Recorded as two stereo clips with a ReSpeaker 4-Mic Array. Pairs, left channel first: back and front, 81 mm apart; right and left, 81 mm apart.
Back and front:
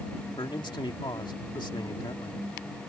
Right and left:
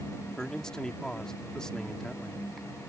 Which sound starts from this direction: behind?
A man speaking, at 0.4 s.